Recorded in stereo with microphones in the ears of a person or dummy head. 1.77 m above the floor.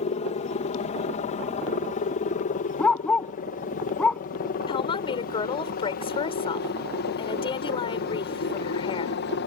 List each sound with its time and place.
0.0 s a helicopter: 35° left (ahead or behind); by 9.5 s 55° left (ahead or behind)
2.8 s a dog barking: 5° left (ahead or behind)
4.7 s a woman speaking: 30° left (ahead or behind)